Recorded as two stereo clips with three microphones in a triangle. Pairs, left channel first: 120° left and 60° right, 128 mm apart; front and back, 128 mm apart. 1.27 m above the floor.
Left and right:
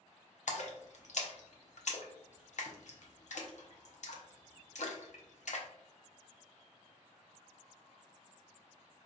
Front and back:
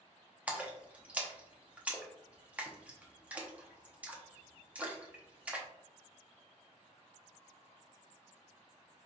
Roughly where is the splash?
Left.